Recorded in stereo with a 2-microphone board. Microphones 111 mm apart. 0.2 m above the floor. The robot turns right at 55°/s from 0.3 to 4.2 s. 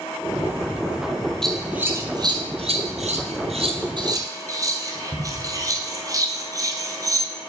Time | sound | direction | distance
1.4 | scissors | 5° left (ahead or behind) | 1.1 m